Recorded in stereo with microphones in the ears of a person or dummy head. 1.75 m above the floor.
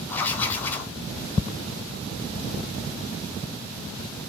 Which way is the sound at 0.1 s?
15° left (ahead or behind).